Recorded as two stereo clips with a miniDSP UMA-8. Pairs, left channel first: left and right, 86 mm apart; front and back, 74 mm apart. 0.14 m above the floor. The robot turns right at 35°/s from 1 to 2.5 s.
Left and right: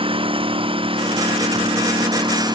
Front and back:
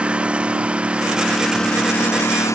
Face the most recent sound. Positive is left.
turn(degrees=-50)